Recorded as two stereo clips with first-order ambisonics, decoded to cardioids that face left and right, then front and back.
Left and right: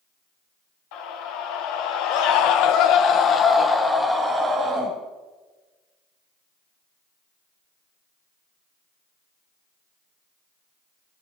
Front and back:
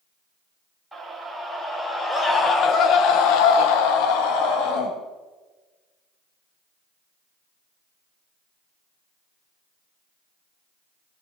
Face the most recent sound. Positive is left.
turn(degrees=-20)